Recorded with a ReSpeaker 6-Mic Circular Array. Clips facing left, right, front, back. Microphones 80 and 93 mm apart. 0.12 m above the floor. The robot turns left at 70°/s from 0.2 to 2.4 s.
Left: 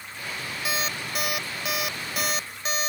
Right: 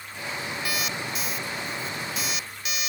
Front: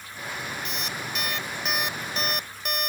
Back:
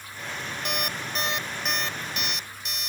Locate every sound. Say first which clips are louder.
0.7 s an alarm clock: left 3 dB, back 2 dB; 160° left; by 2.9 s 35° left